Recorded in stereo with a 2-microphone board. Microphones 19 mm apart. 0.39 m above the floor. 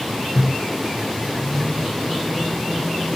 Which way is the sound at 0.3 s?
5° left (ahead or behind).